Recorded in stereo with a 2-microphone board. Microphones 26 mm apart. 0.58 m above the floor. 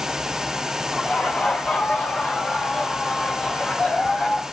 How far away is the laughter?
About 6 m.